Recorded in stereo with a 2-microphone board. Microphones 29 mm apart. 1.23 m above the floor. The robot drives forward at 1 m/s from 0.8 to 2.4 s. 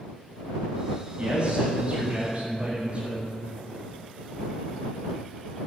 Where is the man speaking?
40° right (ahead or behind), 7 m; by 3.2 s 45° right (ahead or behind), 6 m.